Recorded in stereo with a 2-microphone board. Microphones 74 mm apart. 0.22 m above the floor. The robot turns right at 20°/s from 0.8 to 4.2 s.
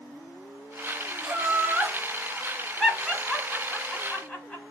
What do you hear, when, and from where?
1.2 s laughter: 15° right (ahead or behind), 1.3 m; by 4.6 s 20° left (ahead or behind), 1.3 m